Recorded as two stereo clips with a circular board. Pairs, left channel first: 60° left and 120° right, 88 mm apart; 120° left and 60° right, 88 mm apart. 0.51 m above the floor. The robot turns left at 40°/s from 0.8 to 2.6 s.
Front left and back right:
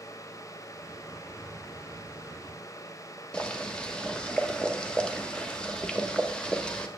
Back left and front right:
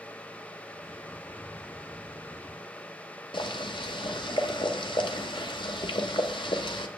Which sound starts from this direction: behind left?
Boiling, at 3.3 s.